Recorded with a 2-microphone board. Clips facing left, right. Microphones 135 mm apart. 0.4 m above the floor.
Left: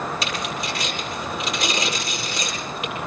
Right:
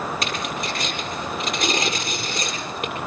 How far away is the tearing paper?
About 8 m.